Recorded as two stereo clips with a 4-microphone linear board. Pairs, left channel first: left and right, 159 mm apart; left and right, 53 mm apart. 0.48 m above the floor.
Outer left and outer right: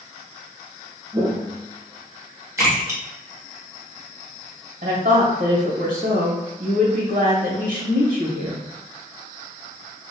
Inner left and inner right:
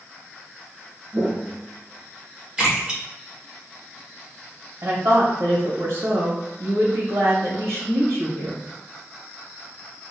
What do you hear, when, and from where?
1.1 s footsteps: 25° right (ahead or behind), 0.6 m; by 2.5 s 50° right (ahead or behind), 2.5 m
2.6 s a splash: 20° right (ahead or behind), 1.6 m
4.8 s a woman speaking: 65° right (ahead or behind), 1.9 m